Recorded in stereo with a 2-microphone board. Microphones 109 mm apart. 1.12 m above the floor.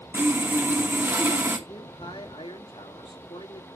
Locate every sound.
0.1 s sawing: 20° right (ahead or behind), 1.4 m
1.7 s a man speaking: 55° left (ahead or behind), 2.5 m